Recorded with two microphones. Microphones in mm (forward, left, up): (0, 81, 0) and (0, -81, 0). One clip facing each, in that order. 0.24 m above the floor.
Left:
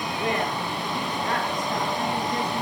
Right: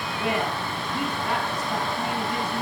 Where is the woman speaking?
20° right (ahead or behind), 3.5 m.